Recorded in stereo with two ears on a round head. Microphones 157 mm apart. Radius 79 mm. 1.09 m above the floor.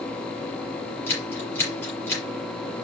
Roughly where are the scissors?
Centre.